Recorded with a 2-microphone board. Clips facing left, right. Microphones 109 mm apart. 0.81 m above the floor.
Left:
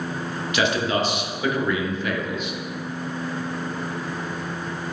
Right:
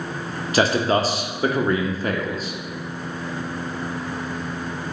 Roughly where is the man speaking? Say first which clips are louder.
Right 4 dB; right.